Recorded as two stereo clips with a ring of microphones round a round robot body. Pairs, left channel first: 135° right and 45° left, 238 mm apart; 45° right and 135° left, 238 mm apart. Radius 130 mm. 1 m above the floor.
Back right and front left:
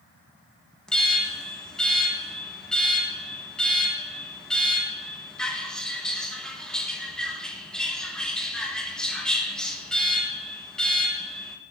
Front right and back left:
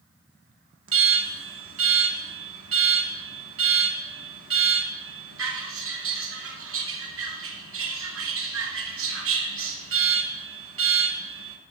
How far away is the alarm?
About 1.0 m.